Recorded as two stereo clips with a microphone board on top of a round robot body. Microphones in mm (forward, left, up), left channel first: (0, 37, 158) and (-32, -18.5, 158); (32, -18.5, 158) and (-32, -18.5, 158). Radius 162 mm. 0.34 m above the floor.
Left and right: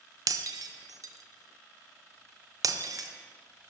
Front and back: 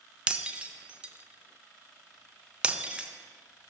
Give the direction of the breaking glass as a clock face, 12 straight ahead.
4 o'clock.